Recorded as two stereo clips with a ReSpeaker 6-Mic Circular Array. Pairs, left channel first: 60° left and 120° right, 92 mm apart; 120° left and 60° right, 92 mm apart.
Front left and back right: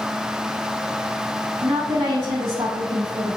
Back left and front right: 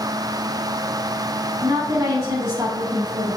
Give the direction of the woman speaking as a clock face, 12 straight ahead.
4 o'clock.